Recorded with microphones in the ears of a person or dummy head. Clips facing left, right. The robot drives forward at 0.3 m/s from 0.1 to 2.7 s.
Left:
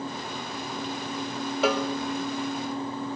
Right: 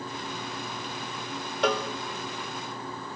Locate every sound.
1.6 s a cowbell: 5° left (ahead or behind), 1.4 m